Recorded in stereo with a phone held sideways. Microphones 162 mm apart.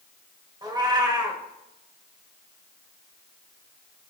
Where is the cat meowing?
25° right (ahead or behind), 1.5 m.